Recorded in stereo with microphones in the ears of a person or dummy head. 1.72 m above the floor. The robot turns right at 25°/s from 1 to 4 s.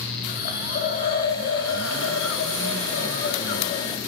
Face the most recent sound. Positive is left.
turn(degrees=140)